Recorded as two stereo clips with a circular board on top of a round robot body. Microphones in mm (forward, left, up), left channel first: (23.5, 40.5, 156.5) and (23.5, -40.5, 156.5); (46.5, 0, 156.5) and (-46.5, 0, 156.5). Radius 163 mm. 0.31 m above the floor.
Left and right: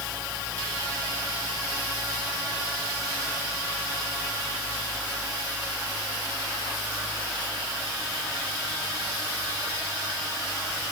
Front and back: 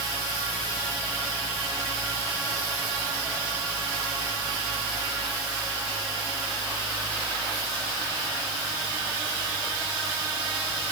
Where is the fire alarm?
No fire alarm in this recording.